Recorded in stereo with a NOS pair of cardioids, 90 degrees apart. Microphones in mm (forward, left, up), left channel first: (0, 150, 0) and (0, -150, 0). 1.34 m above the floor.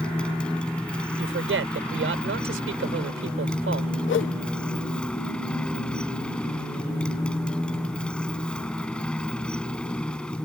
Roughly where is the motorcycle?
Ahead.